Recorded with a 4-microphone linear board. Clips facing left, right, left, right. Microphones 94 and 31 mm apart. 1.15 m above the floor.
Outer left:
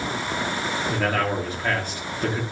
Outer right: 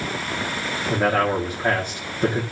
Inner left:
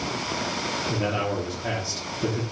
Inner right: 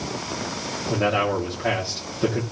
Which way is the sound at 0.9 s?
20° right (ahead or behind).